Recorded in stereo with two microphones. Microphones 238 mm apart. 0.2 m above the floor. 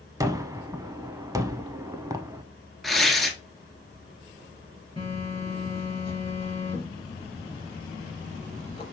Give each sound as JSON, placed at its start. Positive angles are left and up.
{"t": 0.2, "sound": "a gunshot", "side_deg": -15, "distance_m": 0.5}
{"t": 2.8, "sound": "tearing paper", "side_deg": 0, "distance_m": 1.1}
{"t": 5.0, "sound": "a phone buzzing", "side_deg": 15, "distance_m": 3.0}